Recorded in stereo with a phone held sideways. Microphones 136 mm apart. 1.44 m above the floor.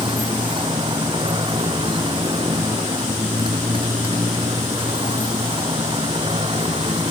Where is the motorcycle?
35° right (ahead or behind); by 7.1 s 40° right (ahead or behind).